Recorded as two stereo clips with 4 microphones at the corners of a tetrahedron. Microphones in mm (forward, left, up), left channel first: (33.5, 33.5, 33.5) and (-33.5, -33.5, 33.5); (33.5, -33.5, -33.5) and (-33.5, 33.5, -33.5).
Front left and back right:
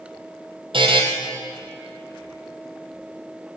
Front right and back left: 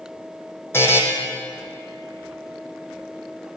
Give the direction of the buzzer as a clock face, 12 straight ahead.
4 o'clock.